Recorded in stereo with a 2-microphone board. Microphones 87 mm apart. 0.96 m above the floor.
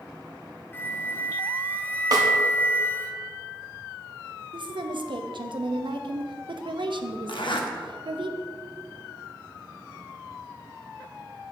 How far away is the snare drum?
About 1.1 m.